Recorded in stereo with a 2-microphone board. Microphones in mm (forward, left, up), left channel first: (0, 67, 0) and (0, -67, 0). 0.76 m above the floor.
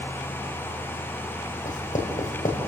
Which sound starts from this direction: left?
Writing, at 1.6 s.